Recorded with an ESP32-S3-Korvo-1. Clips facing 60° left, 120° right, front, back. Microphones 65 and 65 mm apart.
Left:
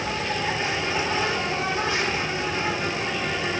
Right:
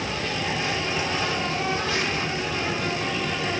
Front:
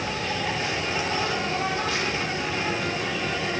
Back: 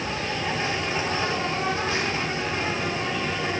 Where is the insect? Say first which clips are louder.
Left 2 dB, even; 125° left, 3.5 m.